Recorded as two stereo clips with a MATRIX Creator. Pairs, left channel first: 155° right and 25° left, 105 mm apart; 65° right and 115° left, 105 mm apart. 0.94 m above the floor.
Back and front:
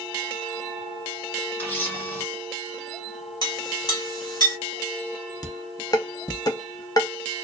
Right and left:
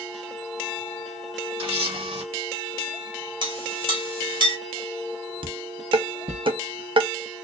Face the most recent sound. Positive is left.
turn(degrees=150)